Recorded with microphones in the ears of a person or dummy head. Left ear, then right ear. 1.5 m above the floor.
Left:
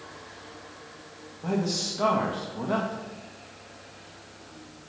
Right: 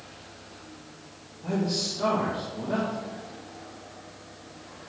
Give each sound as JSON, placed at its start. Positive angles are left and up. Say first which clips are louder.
{"t": 1.4, "sound": "a man speaking", "louder": "even", "side_deg": 80, "distance_m": 1.8}